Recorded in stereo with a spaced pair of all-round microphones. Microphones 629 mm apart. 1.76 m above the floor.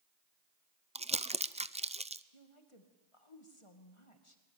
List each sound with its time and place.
0.9 s crumpling: 10° right (ahead or behind), 0.5 m
2.3 s a woman speaking: 50° left (ahead or behind), 2.5 m